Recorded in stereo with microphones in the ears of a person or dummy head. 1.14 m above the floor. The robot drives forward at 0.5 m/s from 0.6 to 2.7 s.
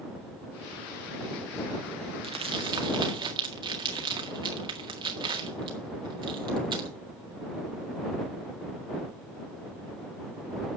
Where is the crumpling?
25° right (ahead or behind), 1.5 m.